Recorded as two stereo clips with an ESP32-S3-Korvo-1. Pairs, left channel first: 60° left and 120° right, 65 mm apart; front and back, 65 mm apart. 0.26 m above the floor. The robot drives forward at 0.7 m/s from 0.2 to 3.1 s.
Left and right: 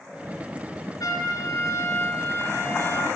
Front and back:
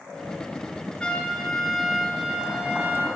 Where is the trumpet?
75° left, 1.9 m; by 3.1 s 120° left, 2 m.